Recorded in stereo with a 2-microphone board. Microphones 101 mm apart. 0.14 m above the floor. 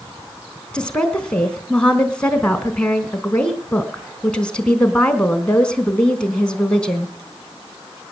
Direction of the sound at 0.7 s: 10° left (ahead or behind).